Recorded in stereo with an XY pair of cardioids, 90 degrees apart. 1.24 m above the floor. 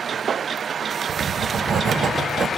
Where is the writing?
55° right, 0.8 m.